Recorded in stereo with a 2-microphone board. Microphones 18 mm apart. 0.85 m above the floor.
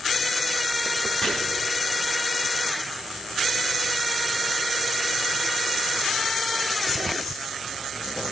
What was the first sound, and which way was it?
Chopping, 25° left (ahead or behind).